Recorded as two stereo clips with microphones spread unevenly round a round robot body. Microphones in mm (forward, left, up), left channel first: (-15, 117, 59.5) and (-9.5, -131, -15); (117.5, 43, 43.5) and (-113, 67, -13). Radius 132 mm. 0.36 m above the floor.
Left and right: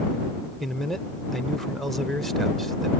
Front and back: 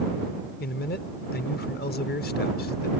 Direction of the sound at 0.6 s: 30° right.